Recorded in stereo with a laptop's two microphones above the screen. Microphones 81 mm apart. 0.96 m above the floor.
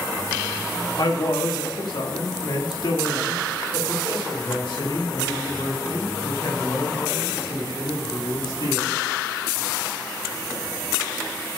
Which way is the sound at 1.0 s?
55° left (ahead or behind).